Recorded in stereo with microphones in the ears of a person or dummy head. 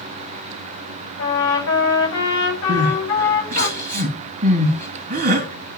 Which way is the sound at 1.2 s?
55° left (ahead or behind).